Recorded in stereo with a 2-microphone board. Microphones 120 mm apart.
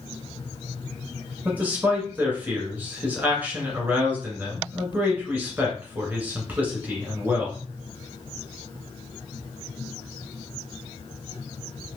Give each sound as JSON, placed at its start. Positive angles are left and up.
{"t": 1.4, "sound": "a man speaking", "side_deg": -15, "distance_m": 1.5}